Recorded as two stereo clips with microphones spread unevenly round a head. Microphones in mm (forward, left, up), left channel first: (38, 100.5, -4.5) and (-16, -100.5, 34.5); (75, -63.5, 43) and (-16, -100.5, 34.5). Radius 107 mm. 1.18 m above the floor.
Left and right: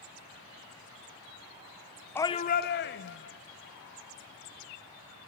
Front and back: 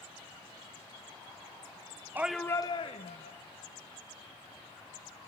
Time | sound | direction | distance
2.1 | a shout | 140° left | 0.7 m